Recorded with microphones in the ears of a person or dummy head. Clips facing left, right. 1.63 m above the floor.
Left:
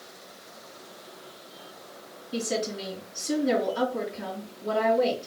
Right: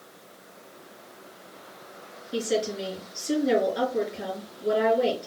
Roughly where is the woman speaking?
Centre.